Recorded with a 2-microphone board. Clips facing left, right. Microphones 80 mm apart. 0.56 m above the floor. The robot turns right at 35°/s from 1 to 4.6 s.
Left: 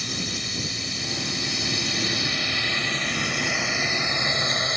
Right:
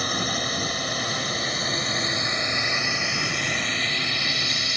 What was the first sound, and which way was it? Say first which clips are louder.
A drone: right 6 dB; 55° right (ahead or behind).